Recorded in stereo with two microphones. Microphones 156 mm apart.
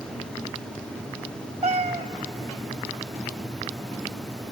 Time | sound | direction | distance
1.6 | a cat meowing | 45° right (ahead or behind) | 0.7 m